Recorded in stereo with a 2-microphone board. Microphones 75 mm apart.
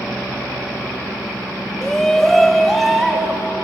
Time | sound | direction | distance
1.8 | a shout | 5° left (ahead or behind) | 0.6 m